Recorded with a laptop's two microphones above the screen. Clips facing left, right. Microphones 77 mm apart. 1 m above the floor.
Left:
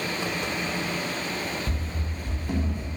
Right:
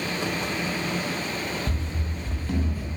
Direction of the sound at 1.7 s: Centre (ahead or behind).